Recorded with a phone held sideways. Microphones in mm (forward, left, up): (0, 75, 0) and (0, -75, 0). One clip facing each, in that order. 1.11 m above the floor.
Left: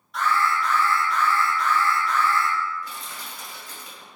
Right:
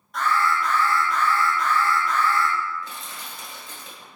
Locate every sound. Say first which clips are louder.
0.1 s an alarm: right 1 dB; 50° right (ahead or behind), 1.6 m
2.8 s crushing: even; 25° right (ahead or behind), 1.6 m